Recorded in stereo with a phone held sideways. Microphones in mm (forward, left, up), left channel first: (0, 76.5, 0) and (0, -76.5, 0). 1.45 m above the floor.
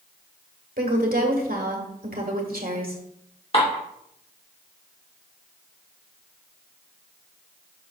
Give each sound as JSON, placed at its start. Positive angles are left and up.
{"t": 0.8, "sound": "a woman speaking", "side_deg": -75, "distance_m": 1.6}
{"t": 3.5, "sound": "dishes clattering", "side_deg": 40, "distance_m": 2.5}